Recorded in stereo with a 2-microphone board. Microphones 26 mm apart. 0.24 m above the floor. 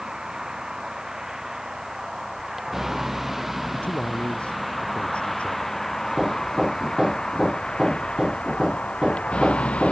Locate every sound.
0.0 s a vehicle: 25° right (ahead or behind); by 9.9 s 45° left (ahead or behind)
3.7 s a man speaking: 55° left (ahead or behind)
6.1 s hammering: 20° right (ahead or behind)